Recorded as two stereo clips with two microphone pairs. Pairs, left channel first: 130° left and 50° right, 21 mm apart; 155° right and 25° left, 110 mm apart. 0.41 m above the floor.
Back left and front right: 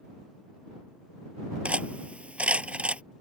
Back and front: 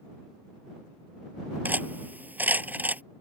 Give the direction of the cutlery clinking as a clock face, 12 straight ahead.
2 o'clock.